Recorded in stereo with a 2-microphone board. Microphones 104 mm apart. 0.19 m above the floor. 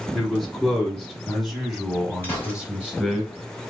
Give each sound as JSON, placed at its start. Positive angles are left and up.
{"t": 0.1, "sound": "a man speaking", "side_deg": 5, "distance_m": 1.8}
{"t": 2.2, "sound": "a gunshot", "side_deg": 20, "distance_m": 1.8}